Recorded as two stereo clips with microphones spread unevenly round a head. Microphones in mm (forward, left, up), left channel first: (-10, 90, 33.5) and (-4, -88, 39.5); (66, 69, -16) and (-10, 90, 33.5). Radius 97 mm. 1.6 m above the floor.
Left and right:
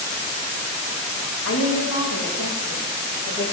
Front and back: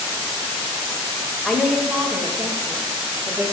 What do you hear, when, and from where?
1.4 s a woman speaking: 75° left, 1.8 m; by 3.4 s 105° left, 3 m